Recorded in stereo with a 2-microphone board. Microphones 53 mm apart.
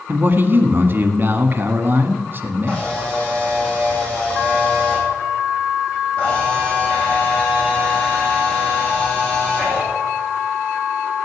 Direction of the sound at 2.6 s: 20° left (ahead or behind).